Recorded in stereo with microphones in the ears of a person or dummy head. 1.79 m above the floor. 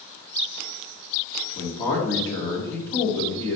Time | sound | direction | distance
1.6 | a man speaking | 20° left (ahead or behind) | 0.7 m